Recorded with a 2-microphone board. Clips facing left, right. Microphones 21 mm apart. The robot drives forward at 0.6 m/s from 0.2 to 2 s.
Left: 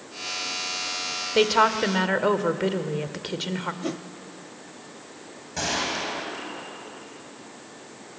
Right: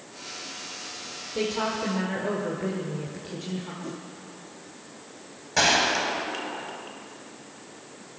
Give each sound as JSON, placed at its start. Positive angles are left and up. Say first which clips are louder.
{"t": 1.4, "sound": "a woman speaking", "louder": "left 8 dB", "side_deg": 60, "distance_m": 1.6}
{"t": 3.8, "sound": "a whoosh", "louder": "left 6 dB", "side_deg": 70, "distance_m": 0.6}
{"t": 5.6, "sound": "a gunshot", "louder": "right 6 dB", "side_deg": -35, "distance_m": 2.5}